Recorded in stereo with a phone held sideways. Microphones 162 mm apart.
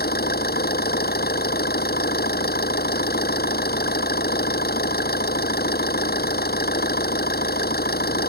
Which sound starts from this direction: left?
An engine running, at 0.0 s.